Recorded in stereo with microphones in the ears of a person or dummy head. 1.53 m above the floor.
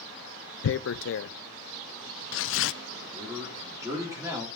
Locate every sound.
0.6 s tearing paper: 60° left (ahead or behind), 0.5 m
3.0 s a man speaking: 15° right (ahead or behind), 4 m